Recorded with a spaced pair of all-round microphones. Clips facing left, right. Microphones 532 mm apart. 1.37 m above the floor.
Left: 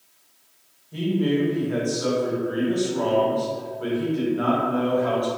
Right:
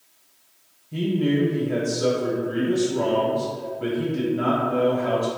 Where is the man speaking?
50° right (ahead or behind), 0.8 m.